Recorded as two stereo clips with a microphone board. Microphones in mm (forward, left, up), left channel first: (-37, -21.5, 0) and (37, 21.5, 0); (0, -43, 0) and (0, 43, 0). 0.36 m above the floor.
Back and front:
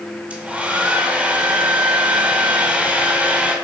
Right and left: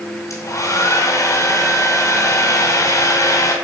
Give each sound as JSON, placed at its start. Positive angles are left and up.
{"t": 0.3, "sound": "a hair dryer", "azimuth_deg": -45, "distance_m": 2.0}